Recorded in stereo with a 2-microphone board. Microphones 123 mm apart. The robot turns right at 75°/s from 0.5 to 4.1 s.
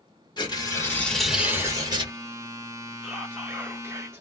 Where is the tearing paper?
125° left, 1.4 m; by 2.1 s 115° right, 1.4 m.